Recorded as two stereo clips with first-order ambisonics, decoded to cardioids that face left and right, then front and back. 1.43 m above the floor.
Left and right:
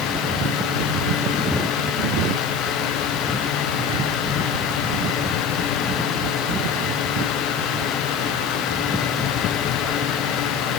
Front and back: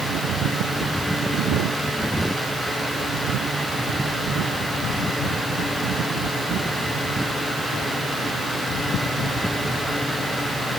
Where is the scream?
No scream in this recording.